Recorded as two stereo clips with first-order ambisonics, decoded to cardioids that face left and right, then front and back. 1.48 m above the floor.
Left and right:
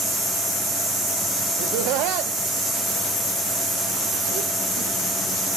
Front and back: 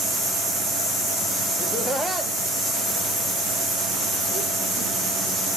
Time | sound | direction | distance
1.6 | laughter | 65° right | 0.9 m